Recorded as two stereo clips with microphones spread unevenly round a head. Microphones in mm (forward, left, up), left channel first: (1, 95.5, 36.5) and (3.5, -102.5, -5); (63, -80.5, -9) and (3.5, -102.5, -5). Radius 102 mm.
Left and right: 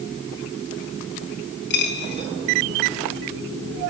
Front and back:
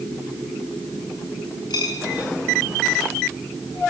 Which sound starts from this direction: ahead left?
A dropped coin, at 1.7 s.